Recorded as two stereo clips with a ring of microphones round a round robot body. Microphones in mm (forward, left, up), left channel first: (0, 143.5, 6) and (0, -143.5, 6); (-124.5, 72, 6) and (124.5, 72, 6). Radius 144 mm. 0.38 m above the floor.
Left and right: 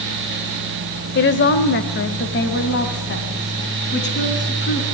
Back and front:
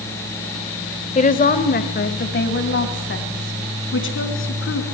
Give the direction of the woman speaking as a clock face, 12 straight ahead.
8 o'clock.